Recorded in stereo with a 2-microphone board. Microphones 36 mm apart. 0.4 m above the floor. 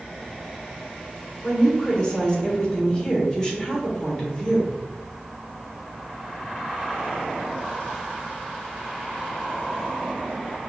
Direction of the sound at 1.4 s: 20° left (ahead or behind).